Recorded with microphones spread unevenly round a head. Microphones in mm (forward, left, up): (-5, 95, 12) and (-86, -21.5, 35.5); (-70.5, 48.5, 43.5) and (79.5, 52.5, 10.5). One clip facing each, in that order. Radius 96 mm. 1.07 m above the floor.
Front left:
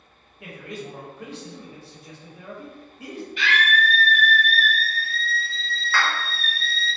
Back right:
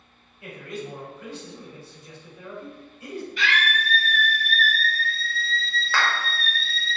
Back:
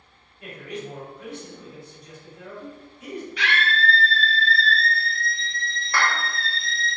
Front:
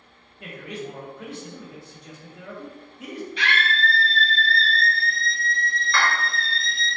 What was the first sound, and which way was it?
A man speaking, 15° left.